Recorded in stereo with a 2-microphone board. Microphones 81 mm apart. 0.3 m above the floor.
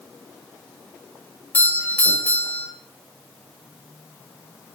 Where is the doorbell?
20° left (ahead or behind), 1.8 m.